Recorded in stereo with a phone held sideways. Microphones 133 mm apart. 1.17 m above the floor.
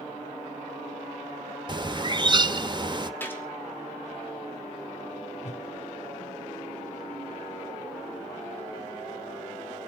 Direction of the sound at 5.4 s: 55° left (ahead or behind).